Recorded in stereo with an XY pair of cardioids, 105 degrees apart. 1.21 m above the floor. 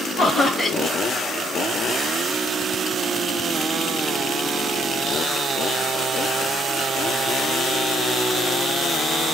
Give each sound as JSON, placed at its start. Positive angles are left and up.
{"t": 0.2, "sound": "laughter", "azimuth_deg": 30, "distance_m": 0.9}